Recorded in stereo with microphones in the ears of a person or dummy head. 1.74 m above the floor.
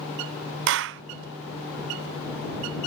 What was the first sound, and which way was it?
A clap, 65° right (ahead or behind).